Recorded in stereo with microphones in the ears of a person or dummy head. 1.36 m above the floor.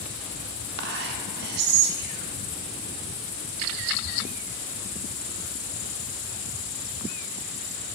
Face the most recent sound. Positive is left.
turn(degrees=-60)  # may be behind; listen again after turning